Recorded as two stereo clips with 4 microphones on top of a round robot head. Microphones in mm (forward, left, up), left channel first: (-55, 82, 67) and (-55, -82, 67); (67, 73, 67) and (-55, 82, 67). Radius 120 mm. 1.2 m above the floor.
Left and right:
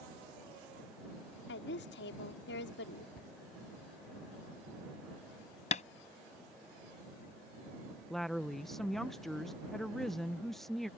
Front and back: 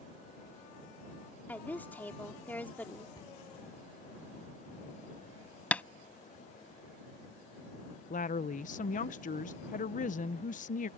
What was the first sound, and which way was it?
A woman speaking, 70° left.